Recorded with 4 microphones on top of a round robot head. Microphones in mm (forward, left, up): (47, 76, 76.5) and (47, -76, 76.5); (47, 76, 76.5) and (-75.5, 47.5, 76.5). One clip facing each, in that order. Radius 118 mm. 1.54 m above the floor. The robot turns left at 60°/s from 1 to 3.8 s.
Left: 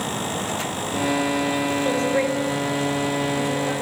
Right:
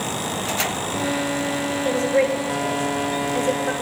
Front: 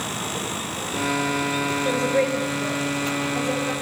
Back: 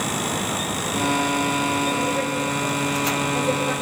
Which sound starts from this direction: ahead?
A woman speaking, at 1.9 s.